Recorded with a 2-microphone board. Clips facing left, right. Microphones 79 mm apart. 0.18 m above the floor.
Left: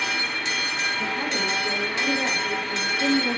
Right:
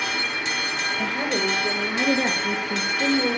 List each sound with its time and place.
1.0 s a woman speaking: 65° right (ahead or behind), 3.5 m; by 3.4 s 55° right (ahead or behind), 3 m